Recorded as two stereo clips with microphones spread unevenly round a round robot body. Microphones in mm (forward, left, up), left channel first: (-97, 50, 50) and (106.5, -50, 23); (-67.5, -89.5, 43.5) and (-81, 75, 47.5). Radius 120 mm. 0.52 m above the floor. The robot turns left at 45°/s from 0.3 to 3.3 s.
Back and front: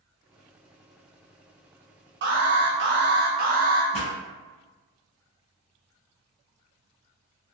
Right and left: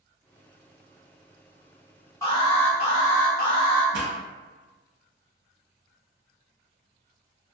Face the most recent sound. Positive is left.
turn(degrees=90)